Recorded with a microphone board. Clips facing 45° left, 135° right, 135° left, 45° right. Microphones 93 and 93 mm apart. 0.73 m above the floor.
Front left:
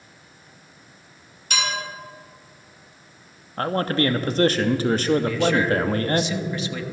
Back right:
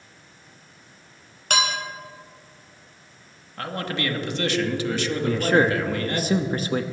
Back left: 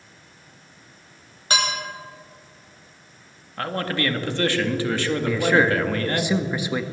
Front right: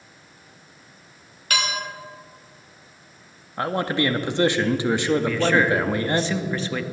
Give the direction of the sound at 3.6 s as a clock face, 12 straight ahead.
11 o'clock.